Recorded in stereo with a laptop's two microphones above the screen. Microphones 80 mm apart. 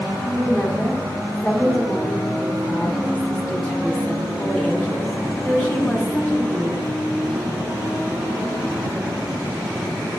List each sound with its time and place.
0.3 s a woman speaking: 5° left (ahead or behind), 1.5 m